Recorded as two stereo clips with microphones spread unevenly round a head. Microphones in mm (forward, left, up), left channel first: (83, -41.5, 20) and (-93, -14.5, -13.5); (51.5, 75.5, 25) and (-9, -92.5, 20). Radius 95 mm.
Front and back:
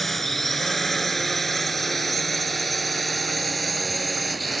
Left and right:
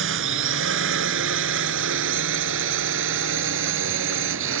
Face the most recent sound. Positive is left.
turn(degrees=-100)